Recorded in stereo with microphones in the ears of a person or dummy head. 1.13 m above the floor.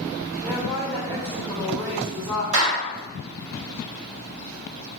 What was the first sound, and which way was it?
A woman speaking, 15° right (ahead or behind).